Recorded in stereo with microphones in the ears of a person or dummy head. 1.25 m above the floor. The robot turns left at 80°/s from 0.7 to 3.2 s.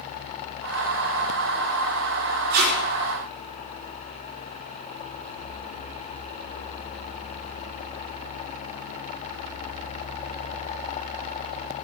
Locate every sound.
2.5 s tape being pulled: 50° right (ahead or behind), 4.5 m; by 2.7 s 70° right (ahead or behind), 4.5 m